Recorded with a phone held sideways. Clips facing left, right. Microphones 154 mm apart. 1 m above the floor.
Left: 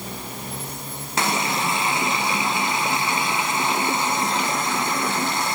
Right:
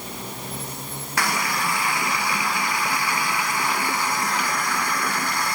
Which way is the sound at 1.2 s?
25° left (ahead or behind).